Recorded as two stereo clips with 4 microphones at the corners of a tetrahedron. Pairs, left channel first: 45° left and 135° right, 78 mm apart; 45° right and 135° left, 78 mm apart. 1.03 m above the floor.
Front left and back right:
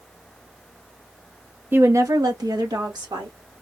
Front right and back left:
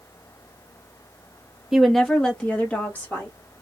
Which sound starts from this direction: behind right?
A woman speaking, at 1.7 s.